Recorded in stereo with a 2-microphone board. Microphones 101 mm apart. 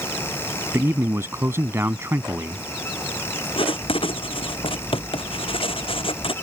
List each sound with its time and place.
0.7 s a man speaking: 25° right (ahead or behind)
3.6 s writing: 65° left (ahead or behind)